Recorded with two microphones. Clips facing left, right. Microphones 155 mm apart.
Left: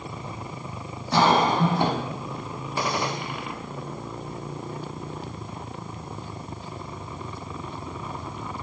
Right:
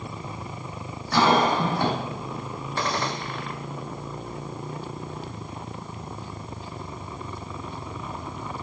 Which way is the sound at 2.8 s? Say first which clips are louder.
Left 1 dB; 10° left (ahead or behind).